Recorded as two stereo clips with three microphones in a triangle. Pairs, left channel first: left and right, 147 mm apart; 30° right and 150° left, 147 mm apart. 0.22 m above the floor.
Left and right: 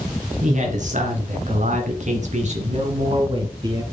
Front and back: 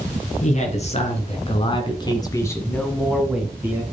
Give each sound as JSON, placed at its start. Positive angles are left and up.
{"t": 0.4, "sound": "a man speaking", "azimuth_deg": -60, "distance_m": 2.5}